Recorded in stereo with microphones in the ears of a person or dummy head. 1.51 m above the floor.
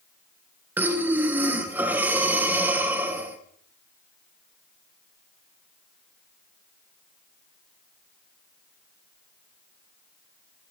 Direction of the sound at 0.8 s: 10° right (ahead or behind).